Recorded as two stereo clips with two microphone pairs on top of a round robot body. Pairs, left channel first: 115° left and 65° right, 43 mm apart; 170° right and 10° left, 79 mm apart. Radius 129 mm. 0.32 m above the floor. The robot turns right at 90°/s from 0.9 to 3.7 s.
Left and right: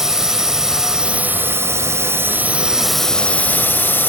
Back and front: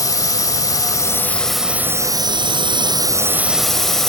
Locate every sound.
0.0 s a drone: 145° right; by 4.1 s 105° left